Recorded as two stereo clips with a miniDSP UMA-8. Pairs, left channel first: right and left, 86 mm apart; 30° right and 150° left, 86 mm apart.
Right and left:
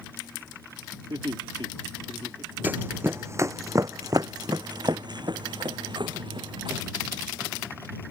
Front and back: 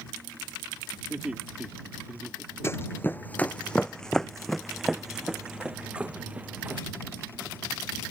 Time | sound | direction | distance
1.1 | laughter | 70° left | ?
2.6 | running footsteps | 25° left | ?